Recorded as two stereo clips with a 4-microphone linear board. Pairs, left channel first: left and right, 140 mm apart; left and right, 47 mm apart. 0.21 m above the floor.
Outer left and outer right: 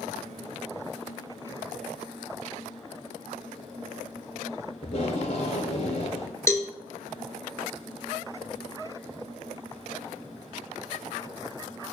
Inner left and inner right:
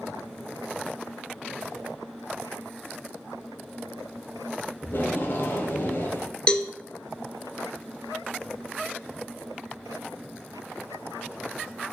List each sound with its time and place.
4.8 s tape being pulled: 50° left (ahead or behind), 0.7 m
6.5 s a cowbell: 20° left (ahead or behind), 0.5 m